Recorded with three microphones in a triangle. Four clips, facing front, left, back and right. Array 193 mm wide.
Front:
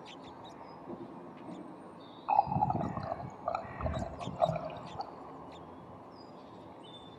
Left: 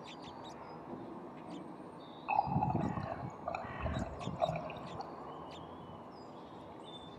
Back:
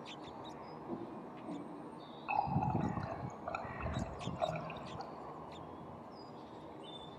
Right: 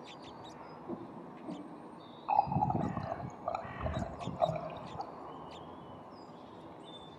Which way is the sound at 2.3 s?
25° right.